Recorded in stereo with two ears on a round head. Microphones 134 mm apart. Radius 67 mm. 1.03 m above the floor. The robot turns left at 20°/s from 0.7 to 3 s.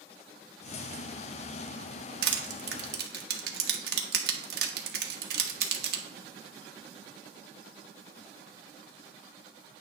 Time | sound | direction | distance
2.2 | crushing | 80° right | 1.2 m